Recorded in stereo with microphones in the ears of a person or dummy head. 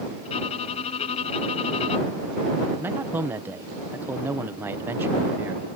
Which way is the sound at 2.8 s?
10° right (ahead or behind).